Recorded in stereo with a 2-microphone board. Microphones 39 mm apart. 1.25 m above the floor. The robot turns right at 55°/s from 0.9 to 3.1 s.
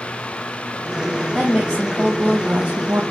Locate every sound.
1.3 s a woman speaking: 155° left, 0.6 m; by 3.0 s 110° right, 0.6 m